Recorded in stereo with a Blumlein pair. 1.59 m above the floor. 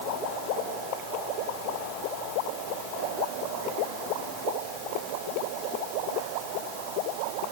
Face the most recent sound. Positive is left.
No sound to turn to.